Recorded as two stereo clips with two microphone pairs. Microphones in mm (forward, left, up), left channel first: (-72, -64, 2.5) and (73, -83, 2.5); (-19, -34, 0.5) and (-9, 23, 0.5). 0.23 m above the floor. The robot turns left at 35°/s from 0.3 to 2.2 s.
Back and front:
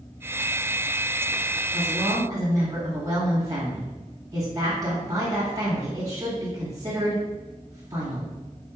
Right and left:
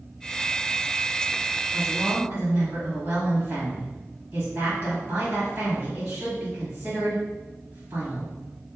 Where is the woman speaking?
45° left, 1.7 m; by 8.3 s 30° left, 1.7 m.